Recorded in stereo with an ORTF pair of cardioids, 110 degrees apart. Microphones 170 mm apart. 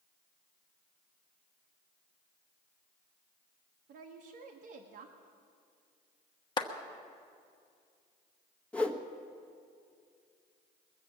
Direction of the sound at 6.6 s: 25° left.